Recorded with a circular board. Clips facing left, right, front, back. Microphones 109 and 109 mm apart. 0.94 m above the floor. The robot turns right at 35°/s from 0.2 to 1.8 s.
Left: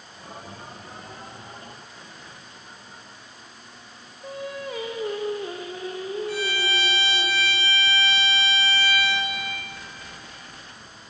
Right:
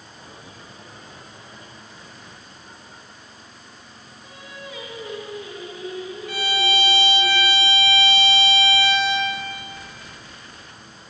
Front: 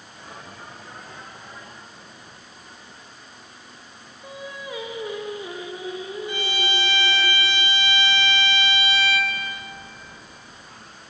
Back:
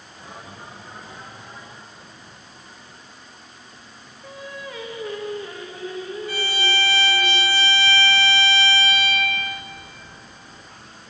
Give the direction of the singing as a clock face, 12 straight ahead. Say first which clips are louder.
Left 8 dB, even; 10 o'clock.